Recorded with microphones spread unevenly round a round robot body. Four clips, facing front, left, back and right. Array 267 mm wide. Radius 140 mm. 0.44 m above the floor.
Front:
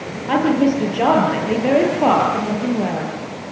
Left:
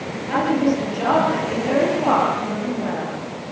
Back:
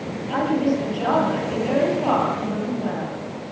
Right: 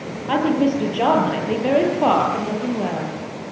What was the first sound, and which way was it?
A woman speaking, 25° right.